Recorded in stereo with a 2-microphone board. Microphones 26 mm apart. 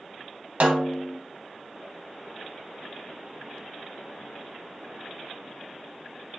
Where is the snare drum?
60° right (ahead or behind), 0.9 m.